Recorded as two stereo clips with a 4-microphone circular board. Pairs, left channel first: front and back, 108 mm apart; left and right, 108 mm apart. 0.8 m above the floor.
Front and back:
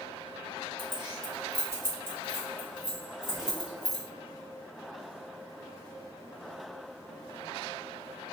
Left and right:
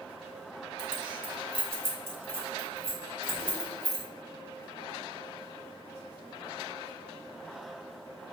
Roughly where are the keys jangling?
Behind right.